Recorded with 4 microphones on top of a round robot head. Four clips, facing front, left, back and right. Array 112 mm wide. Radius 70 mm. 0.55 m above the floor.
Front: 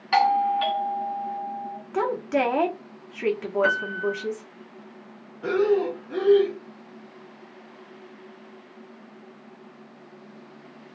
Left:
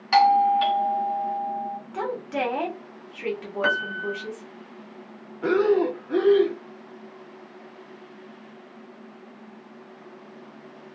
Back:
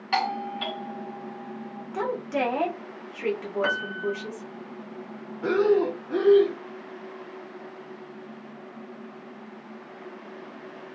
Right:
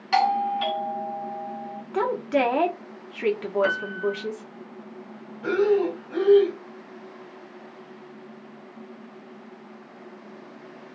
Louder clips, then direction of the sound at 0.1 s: Left 5 dB, front 8 dB; 65° left.